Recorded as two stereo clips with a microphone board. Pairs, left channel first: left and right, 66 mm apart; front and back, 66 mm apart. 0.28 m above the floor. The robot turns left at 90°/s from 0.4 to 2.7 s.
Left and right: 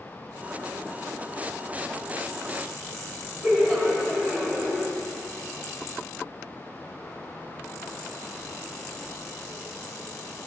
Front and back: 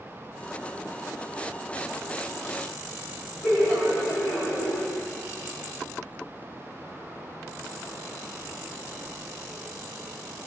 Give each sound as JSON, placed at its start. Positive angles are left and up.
{"t": 3.4, "sound": "laughter", "azimuth_deg": 25, "distance_m": 1.5}